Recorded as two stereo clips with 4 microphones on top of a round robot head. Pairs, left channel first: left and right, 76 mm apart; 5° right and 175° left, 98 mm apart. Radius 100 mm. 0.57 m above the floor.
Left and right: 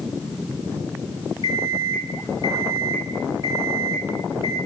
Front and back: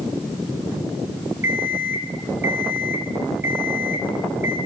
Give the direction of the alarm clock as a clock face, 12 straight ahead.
8 o'clock.